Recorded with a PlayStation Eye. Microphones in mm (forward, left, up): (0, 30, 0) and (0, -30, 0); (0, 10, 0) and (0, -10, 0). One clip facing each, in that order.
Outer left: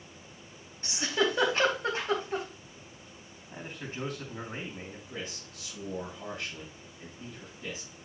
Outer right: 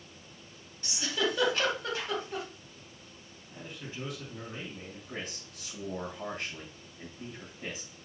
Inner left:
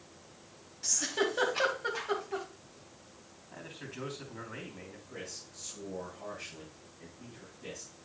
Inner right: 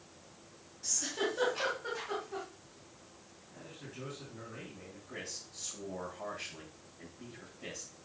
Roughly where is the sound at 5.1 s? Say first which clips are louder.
Outer right 2 dB, inner right 2 dB; right.